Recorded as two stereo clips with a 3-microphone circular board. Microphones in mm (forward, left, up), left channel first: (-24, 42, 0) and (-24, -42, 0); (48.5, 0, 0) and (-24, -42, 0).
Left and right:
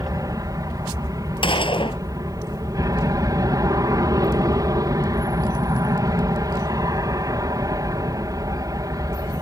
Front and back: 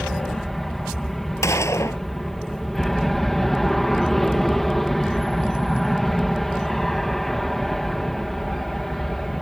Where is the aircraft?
55° right.